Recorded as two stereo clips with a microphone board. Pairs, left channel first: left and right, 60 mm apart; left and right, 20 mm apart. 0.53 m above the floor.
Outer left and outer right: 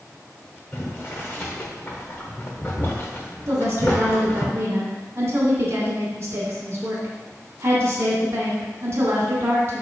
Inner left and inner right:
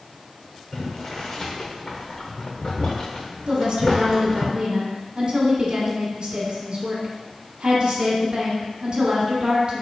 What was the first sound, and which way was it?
Boiling, 35° left (ahead or behind).